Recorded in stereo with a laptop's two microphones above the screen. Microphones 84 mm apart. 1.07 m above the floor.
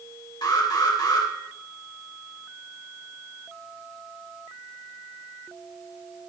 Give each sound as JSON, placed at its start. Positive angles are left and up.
{"t": 0.4, "sound": "an alarm", "side_deg": 55, "distance_m": 3.0}